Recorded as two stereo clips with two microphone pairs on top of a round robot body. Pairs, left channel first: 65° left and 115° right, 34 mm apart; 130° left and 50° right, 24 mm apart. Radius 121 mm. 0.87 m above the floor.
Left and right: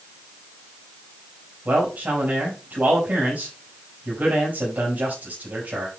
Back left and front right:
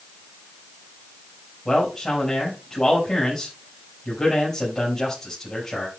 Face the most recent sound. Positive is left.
turn(degrees=-145)